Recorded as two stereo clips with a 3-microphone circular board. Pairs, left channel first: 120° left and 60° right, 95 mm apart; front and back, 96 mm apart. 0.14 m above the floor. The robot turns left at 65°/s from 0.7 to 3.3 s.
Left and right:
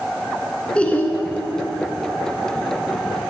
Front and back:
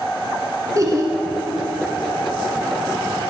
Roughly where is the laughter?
Behind.